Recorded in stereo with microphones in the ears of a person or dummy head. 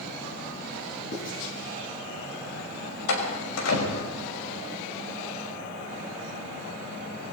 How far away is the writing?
About 6 m.